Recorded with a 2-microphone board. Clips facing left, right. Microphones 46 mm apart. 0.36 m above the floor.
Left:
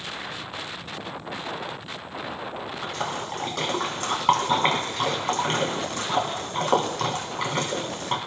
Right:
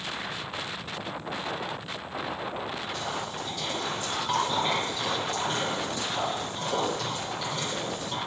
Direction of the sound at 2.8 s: 65° left (ahead or behind).